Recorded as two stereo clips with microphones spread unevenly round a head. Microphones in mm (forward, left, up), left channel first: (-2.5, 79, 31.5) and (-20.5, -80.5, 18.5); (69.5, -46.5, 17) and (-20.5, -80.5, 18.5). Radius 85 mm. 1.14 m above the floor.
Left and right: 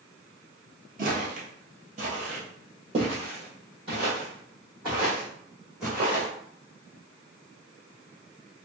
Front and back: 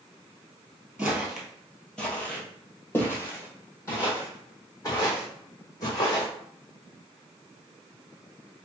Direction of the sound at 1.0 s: 85° right.